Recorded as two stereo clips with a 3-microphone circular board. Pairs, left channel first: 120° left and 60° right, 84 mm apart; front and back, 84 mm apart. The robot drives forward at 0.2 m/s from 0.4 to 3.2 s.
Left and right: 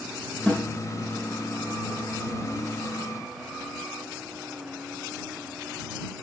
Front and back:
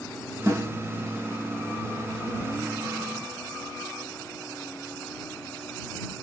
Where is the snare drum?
175° right, 1.1 m.